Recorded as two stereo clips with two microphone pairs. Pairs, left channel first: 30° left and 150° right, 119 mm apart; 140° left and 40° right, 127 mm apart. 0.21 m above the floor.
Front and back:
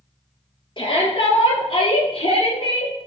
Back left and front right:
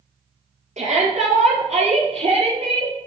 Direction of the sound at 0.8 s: 20° right.